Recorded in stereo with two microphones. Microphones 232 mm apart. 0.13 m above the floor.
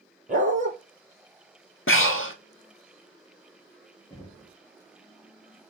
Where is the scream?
No scream in this recording.